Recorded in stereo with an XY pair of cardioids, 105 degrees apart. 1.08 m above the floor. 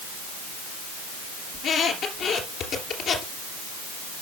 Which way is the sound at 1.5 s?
65° left.